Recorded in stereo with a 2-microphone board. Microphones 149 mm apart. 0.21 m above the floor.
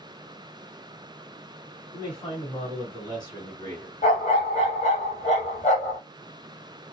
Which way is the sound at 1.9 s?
35° left (ahead or behind).